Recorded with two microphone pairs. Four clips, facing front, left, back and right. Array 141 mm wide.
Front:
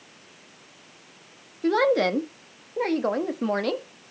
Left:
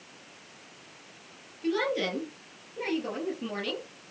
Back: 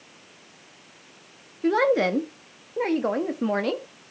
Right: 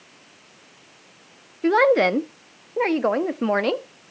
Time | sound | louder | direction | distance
1.6 | a woman speaking | right 12 dB, even | 80° right | 1.2 m